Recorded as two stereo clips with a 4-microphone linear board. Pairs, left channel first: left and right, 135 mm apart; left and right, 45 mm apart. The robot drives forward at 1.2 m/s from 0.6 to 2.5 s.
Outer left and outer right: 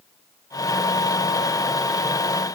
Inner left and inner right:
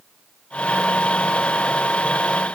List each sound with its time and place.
Only background noise.